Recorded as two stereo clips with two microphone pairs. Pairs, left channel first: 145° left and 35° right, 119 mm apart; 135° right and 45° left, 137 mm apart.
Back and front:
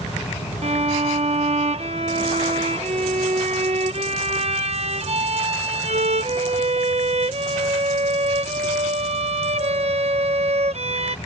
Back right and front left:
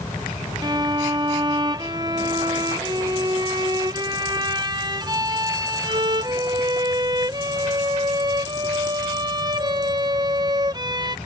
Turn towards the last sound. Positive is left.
turn(degrees=-10)